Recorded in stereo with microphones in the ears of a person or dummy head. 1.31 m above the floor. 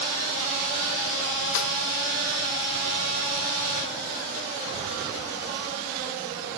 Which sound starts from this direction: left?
A snare drum, at 1.6 s.